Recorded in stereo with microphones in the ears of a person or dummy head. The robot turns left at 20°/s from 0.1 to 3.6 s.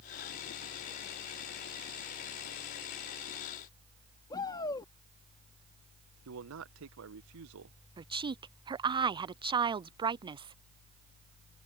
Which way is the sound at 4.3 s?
25° left (ahead or behind).